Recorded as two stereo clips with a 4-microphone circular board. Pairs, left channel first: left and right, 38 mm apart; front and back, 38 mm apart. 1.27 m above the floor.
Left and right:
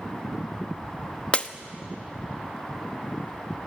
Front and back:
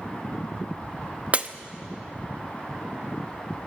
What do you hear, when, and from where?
1.3 s breaking glass: 140° left, 0.8 m